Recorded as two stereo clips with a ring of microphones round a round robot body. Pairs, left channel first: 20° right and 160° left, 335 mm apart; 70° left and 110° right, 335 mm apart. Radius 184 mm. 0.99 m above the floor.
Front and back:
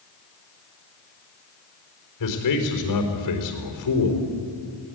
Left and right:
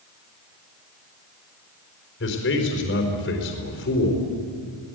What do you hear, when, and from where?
2.2 s a man speaking: 10° left, 4.5 m